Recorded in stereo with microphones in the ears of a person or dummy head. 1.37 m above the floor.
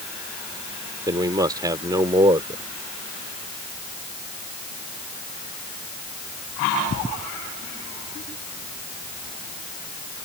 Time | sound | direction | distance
1.1 | a man speaking | 20° right (ahead or behind) | ?